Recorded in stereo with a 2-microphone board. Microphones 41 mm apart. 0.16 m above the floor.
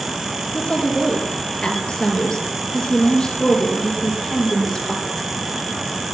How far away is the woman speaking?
About 3 m.